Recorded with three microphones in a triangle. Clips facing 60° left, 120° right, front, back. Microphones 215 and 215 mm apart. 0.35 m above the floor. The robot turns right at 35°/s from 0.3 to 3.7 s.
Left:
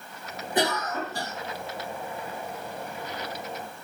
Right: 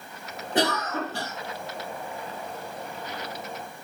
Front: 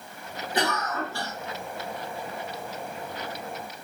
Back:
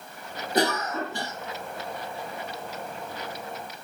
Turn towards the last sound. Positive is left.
turn(degrees=-20)